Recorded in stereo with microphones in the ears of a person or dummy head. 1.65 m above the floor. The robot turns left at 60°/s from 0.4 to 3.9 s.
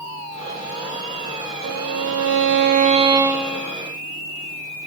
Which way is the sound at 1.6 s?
75° right.